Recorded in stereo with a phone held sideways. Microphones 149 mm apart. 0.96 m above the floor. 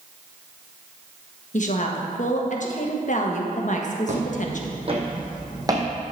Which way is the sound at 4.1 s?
50° right (ahead or behind).